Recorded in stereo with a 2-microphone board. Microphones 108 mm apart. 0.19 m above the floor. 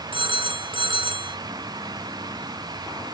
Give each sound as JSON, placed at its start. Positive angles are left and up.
{"t": 0.1, "sound": "a phone ringing", "side_deg": -55, "distance_m": 1.8}